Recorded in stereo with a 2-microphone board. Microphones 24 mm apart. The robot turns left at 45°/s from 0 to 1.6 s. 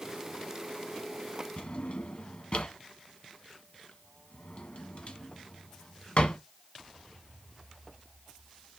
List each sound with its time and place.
1.6 s a drawer: 55° left (ahead or behind), 1.2 m; by 6.4 s 50° left (ahead or behind), 1.2 m